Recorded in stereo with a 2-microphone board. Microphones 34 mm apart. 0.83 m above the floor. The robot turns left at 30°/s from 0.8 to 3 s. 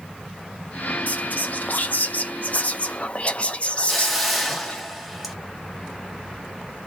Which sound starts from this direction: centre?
A hiss, at 3.9 s.